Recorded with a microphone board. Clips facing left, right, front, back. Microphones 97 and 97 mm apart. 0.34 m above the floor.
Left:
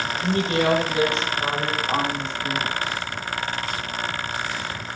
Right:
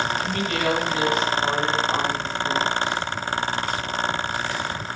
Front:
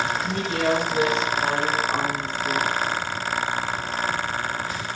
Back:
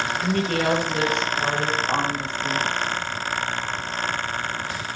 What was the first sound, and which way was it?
A woman speaking, 150° left.